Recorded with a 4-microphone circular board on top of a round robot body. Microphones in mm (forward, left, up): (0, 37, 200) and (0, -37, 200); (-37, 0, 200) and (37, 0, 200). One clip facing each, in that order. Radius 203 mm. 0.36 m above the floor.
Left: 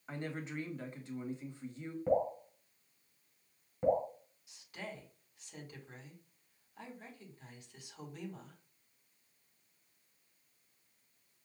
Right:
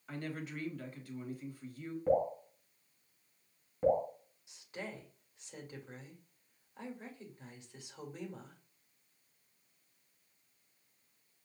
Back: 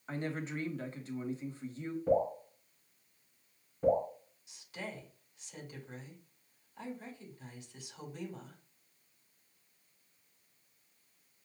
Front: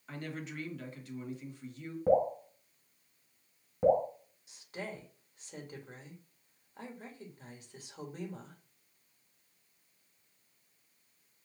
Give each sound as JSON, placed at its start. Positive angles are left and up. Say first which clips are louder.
{"t": 0.1, "sound": "a woman speaking", "louder": "even, back 4 dB", "azimuth_deg": 140, "distance_m": 1.5}
{"t": 2.1, "sound": "dripping", "louder": "right 1 dB, front 3 dB", "azimuth_deg": 0, "distance_m": 3.0}
{"t": 4.5, "sound": "a woman speaking", "louder": "right 2 dB, front 2 dB", "azimuth_deg": -35, "distance_m": 2.0}